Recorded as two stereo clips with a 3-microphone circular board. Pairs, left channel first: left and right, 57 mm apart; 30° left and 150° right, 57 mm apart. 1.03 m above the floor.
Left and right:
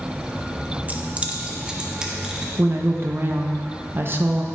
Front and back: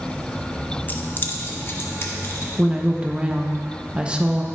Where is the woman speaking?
90° right, 0.8 m.